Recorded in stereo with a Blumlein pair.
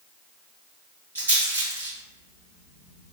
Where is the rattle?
70° right, 1.7 m.